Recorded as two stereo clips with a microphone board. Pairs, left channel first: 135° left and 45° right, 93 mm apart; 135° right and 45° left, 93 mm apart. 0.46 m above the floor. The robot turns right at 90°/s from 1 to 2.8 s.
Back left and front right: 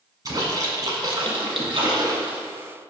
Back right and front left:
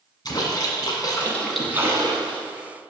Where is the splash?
95° right, 1.6 m; by 2.4 s 35° left, 1.6 m.